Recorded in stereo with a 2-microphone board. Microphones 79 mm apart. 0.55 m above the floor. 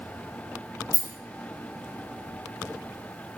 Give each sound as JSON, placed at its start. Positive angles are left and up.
{"t": 0.9, "sound": "a rattle", "side_deg": -55, "distance_m": 0.5}